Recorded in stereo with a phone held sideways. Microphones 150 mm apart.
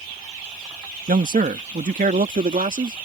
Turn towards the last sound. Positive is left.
turn(degrees=-60)  # may be behind; listen again after turning